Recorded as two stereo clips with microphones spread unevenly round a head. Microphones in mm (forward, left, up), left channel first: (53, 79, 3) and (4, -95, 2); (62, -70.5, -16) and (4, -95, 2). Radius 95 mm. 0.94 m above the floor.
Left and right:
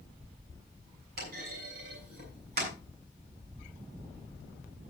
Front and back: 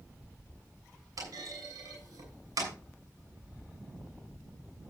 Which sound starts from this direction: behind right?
A clunk, at 1.2 s.